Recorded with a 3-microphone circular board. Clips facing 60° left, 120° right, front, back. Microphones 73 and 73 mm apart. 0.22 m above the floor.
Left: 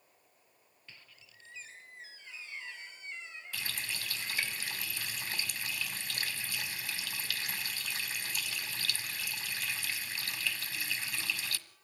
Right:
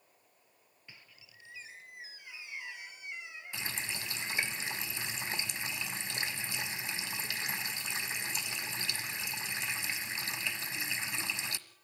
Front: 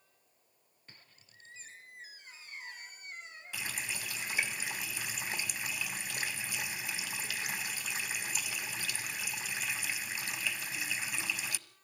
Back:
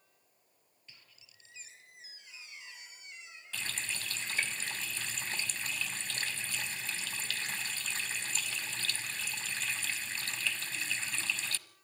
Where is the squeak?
45° right, 2.5 m.